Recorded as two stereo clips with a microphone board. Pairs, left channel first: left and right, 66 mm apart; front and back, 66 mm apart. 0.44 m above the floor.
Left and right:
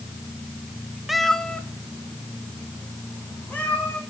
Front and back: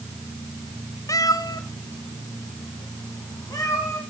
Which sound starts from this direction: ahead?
A cat meowing, at 1.1 s.